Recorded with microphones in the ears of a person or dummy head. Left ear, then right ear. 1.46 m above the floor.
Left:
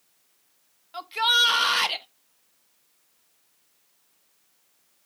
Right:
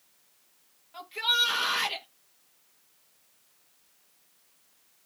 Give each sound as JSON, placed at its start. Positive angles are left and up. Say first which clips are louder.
{"t": 0.9, "sound": "a shout", "louder": "left 5 dB", "side_deg": 45, "distance_m": 1.4}